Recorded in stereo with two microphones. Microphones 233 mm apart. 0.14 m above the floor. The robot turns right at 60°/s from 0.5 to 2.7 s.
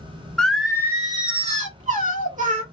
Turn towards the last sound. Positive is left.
turn(degrees=-55)